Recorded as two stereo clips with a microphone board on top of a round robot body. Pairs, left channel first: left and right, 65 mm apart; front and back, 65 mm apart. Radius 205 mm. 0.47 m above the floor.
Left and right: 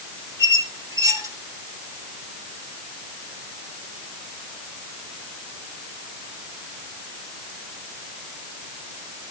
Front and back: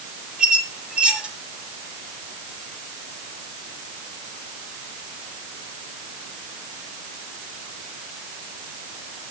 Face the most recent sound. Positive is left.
turn(degrees=-105)